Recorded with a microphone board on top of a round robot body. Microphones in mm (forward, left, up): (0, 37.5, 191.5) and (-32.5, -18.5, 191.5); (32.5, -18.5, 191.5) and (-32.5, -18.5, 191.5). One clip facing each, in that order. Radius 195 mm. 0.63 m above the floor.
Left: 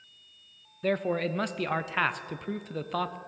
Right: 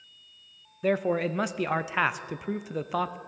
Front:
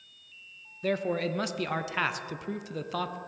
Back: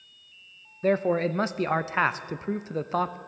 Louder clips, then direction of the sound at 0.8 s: Right 2 dB, back 6 dB; 165° left.